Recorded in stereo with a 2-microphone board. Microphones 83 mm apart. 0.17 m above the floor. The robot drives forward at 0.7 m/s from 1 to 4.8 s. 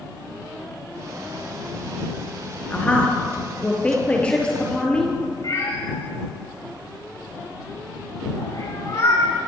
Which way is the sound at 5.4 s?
50° left (ahead or behind).